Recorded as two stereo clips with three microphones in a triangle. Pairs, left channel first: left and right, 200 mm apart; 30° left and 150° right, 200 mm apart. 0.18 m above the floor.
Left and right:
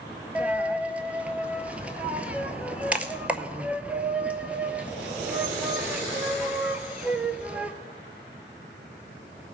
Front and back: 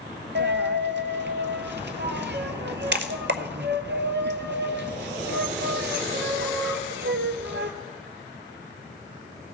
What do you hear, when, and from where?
0.3 s a dropped coin: 175° right, 0.7 m